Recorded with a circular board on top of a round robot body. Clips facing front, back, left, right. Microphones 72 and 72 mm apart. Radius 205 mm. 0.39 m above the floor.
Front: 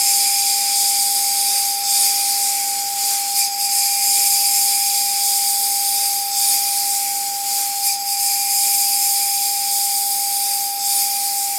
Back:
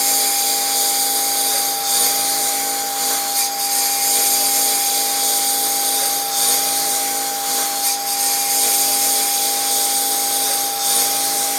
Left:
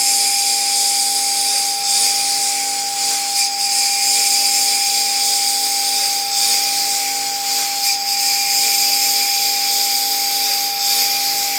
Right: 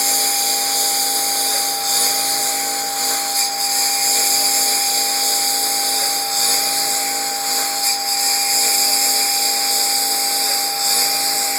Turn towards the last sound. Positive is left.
turn(degrees=-150)